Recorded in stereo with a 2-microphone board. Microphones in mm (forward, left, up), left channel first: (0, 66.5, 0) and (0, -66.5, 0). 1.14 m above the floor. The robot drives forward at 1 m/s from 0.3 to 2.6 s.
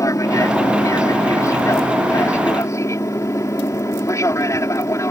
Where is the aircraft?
25° left (ahead or behind); by 5.1 s 20° left (ahead or behind).